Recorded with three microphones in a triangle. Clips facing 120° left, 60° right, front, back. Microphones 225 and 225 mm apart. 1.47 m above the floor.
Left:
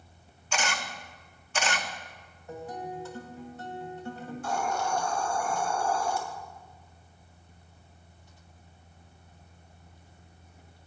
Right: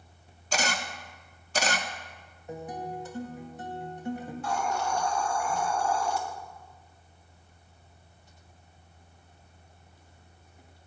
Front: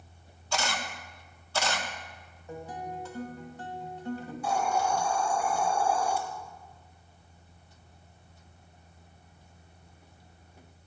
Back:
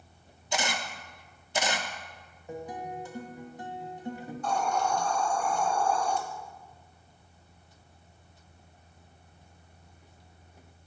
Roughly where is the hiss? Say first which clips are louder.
Left 1 dB, even; left.